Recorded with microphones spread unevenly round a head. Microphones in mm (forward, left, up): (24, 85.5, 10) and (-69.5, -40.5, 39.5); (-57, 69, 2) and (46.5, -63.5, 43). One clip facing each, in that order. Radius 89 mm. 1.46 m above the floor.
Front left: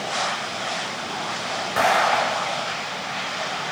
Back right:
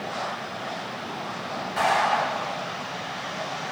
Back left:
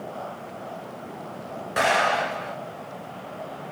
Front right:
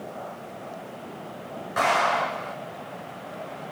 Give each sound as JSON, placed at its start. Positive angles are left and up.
{"t": 1.8, "sound": "an explosion", "azimuth_deg": 75, "distance_m": 6.0}